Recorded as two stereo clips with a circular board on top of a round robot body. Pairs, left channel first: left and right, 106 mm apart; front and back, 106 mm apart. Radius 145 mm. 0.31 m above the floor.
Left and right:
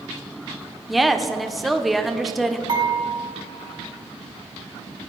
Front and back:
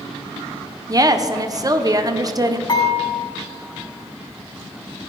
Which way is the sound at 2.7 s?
45° right.